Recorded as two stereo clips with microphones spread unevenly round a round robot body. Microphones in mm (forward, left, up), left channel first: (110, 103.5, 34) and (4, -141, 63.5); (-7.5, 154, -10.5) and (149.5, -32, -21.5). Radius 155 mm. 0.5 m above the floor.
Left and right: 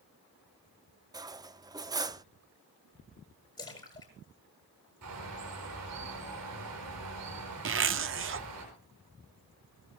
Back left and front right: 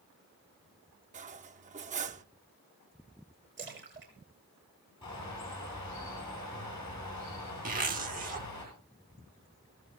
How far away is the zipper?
About 0.8 m.